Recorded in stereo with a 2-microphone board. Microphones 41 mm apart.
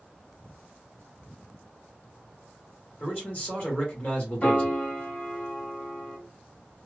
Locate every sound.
3.0 s a man speaking: 40° left (ahead or behind), 1.7 m
4.4 s a piano: 35° left (ahead or behind), 2 m